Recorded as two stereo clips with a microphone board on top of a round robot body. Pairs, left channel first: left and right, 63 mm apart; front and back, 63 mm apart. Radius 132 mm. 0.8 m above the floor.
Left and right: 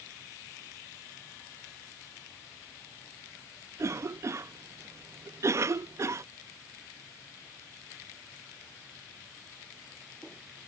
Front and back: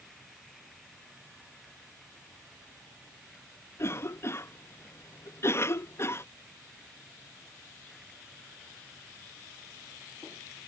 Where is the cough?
50° right.